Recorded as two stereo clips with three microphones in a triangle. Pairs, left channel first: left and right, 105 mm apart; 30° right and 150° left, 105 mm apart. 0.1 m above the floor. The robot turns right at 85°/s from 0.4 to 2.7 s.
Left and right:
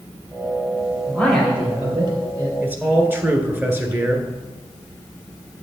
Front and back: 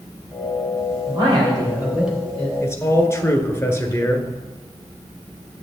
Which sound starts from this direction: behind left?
A man speaking, at 1.1 s.